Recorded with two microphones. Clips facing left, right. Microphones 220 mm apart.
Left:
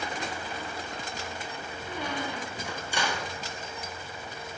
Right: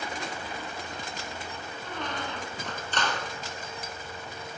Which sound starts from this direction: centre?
A squeak, at 1.8 s.